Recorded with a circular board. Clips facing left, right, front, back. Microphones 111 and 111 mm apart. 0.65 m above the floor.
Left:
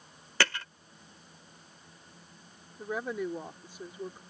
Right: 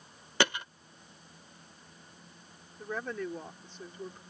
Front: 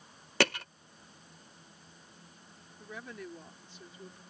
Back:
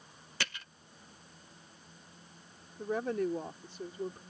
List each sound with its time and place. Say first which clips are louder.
0.4 s hammering: right 2 dB, front 13 dB; 20° right
2.8 s a woman speaking: left 3 dB, back 13 dB; 165° left